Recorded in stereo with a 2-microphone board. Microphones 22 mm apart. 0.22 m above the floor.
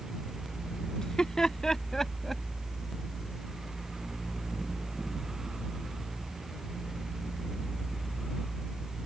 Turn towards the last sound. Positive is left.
turn(degrees=5)  # may be behind; listen again after turning